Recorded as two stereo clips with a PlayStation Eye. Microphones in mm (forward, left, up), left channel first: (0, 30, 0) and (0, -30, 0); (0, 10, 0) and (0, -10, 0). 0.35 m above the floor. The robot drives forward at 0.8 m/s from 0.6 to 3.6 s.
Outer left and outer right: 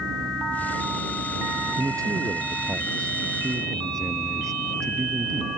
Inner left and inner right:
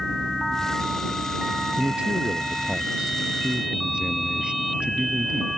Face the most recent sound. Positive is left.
turn(degrees=-60)  # may be behind; listen again after turning